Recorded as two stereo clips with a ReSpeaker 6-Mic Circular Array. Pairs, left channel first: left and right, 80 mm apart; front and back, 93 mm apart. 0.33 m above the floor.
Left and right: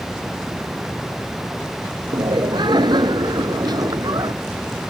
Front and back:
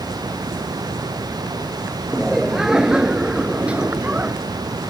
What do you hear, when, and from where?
2.1 s laughter: 95° right; by 4.3 s 110° right